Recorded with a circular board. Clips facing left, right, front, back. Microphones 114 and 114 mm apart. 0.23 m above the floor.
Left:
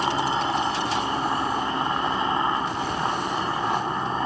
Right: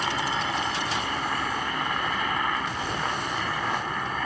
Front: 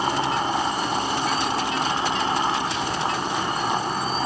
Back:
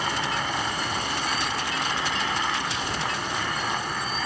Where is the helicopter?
40° left.